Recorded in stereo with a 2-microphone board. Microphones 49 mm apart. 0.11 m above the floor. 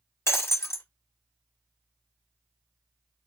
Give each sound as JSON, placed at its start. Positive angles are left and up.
{"t": 0.3, "sound": "breaking glass", "side_deg": 70, "distance_m": 0.9}